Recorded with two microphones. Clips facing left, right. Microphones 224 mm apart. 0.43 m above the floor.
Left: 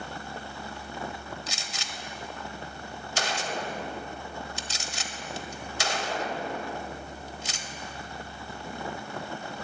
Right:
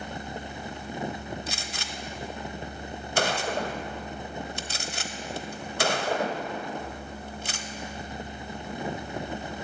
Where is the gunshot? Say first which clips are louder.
Right 4 dB; 55° right (ahead or behind), 1.1 m.